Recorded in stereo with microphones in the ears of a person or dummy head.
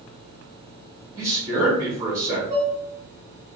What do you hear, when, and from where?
1.2 s a man speaking: 15° right (ahead or behind), 2 m
2.5 s dishes clattering: 20° right (ahead or behind), 2.5 m